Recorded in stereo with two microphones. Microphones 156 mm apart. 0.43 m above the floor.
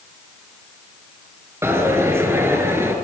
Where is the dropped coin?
15° right (ahead or behind), 2.5 m.